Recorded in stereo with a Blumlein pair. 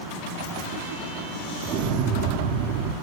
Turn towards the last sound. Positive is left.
turn(degrees=-40)